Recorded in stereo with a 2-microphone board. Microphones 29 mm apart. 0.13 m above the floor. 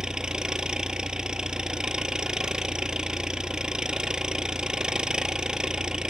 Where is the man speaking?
I don't hear a man speaking.